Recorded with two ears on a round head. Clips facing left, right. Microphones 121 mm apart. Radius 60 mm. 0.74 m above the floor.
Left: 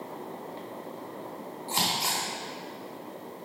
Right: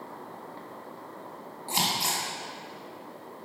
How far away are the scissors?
About 3.5 m.